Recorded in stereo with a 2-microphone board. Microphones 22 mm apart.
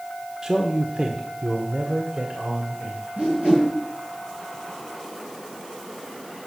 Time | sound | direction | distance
0.4 | a man speaking | 25° right (ahead or behind) | 1.5 m
3.2 | a whoosh | 55° right (ahead or behind) | 9 m